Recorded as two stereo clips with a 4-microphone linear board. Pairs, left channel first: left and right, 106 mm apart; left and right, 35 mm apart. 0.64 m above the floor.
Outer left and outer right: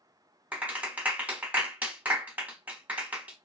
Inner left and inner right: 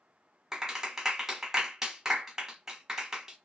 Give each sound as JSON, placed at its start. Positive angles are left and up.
{"t": 0.5, "sound": "a clap", "side_deg": -15, "distance_m": 1.1}